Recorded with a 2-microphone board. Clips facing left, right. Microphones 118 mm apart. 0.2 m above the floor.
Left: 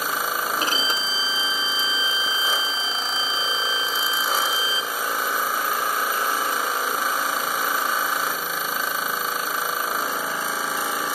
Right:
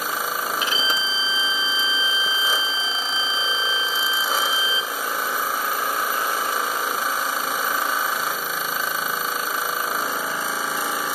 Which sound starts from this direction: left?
A violin, at 0.6 s.